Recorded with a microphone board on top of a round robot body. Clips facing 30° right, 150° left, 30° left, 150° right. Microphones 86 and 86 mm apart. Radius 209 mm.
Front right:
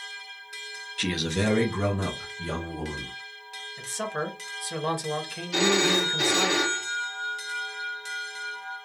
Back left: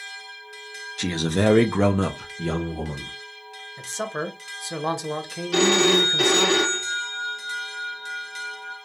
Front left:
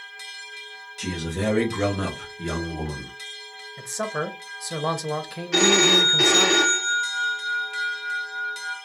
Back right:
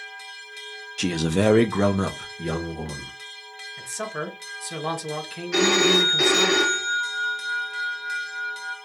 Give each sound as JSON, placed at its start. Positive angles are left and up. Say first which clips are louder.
{"t": 1.0, "sound": "a man speaking", "louder": "back left 5 dB, back right 6 dB", "azimuth_deg": -140, "distance_m": 0.6}
{"t": 3.8, "sound": "a man speaking", "louder": "back left 2 dB, front left 3 dB", "azimuth_deg": 90, "distance_m": 0.9}
{"t": 5.5, "sound": "a phone ringing", "louder": "back left 5 dB, even", "azimuth_deg": 125, "distance_m": 0.6}